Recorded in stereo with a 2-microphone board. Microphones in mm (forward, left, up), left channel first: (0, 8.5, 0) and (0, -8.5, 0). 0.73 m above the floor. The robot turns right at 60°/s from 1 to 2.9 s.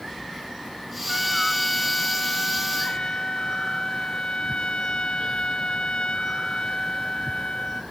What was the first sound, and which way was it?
A trumpet, 10° right.